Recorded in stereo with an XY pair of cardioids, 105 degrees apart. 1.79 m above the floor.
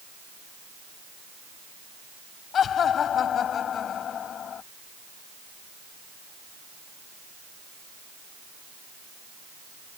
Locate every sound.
2.5 s laughter: 60° left